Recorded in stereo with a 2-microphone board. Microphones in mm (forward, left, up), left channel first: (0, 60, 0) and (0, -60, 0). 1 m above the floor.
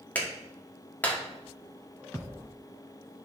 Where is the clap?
15° left (ahead or behind), 1.9 m.